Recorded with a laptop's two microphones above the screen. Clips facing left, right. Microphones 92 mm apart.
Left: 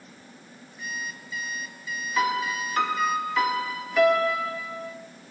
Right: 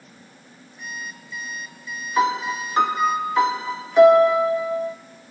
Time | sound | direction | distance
0.8 | an alarm clock | centre (ahead or behind) | 7 m
2.2 | a piano | 25° right (ahead or behind) | 2.5 m